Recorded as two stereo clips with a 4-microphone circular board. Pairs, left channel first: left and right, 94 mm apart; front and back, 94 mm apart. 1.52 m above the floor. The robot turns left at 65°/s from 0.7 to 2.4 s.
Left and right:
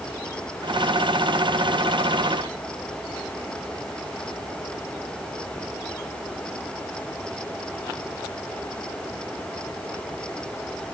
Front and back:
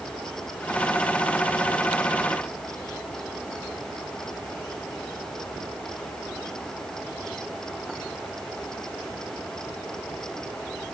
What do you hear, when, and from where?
Only background noise.